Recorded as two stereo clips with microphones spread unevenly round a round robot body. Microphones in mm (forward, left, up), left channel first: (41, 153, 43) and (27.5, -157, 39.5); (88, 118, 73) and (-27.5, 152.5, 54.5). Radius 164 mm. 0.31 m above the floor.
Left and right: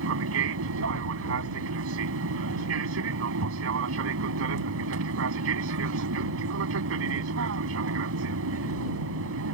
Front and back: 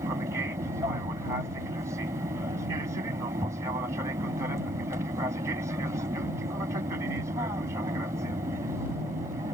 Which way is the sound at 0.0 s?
135° right.